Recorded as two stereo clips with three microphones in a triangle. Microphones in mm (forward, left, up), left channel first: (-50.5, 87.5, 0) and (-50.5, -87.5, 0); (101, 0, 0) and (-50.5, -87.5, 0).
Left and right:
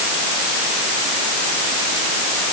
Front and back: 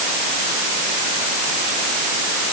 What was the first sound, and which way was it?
Only background noise.